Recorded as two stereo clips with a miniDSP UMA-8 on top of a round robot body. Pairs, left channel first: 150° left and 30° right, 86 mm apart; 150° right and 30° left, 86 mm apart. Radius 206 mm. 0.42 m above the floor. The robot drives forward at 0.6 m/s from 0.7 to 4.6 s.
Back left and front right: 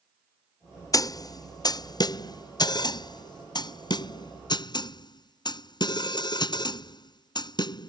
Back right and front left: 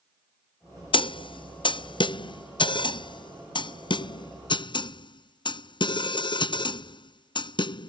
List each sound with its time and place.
0.9 s a snare drum: 165° right; by 7.9 s 175° right